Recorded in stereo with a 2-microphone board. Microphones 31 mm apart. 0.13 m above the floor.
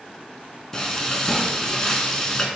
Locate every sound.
0.7 s frying: 20° left (ahead or behind), 0.7 m